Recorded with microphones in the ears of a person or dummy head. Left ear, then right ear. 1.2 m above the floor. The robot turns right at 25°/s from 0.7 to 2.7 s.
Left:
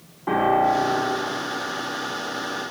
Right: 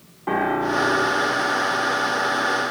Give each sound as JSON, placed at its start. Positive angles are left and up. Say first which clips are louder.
{"t": 0.3, "sound": "a piano", "louder": "left 3 dB", "side_deg": 0, "distance_m": 1.5}